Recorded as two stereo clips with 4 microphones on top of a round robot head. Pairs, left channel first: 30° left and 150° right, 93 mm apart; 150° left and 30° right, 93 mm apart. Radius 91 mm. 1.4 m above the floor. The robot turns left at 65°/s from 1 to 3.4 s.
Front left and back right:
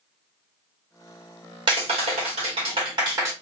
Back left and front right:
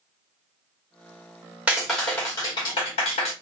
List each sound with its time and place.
1.7 s a clap: 110° right, 1.7 m; by 3.3 s 145° left, 1.7 m